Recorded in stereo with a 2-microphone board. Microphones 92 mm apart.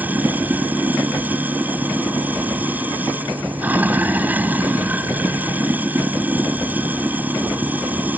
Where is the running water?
20° right (ahead or behind).